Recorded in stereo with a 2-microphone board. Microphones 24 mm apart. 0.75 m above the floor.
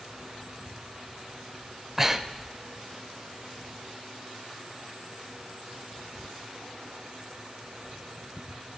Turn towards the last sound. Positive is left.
turn(degrees=-15)  # may be behind; listen again after turning